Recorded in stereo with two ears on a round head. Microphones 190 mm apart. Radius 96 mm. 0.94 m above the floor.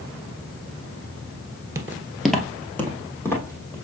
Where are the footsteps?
15° right (ahead or behind), 0.9 m; by 3.8 s 15° left (ahead or behind), 2.5 m.